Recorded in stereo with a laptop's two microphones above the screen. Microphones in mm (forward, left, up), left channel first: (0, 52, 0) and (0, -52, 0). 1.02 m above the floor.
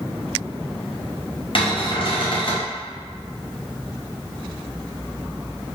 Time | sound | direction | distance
1.6 | a cupboard door | 55° left (ahead or behind) | 0.6 m